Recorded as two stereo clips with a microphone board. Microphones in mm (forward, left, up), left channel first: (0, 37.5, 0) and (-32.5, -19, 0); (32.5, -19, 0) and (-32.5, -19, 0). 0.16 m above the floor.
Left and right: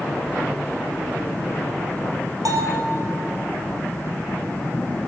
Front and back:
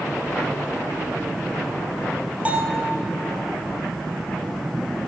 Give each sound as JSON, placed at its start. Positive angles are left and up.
{"t": 2.5, "sound": "a bell", "azimuth_deg": -115, "distance_m": 3.0}